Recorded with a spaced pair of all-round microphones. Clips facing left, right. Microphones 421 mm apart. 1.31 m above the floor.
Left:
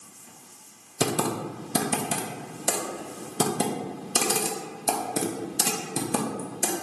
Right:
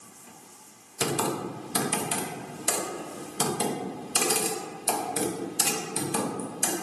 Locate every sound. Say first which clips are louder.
1.0 s typing on a keyboard: left 2 dB; 60° left (ahead or behind), 0.6 m